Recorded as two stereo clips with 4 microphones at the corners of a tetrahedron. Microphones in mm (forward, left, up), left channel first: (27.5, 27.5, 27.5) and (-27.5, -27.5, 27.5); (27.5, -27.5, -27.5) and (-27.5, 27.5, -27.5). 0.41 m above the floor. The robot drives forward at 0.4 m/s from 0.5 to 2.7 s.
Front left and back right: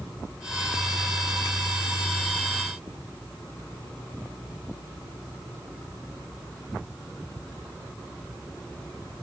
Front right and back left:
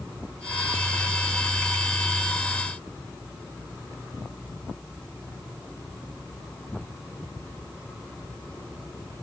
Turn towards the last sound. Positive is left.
No sound to turn to.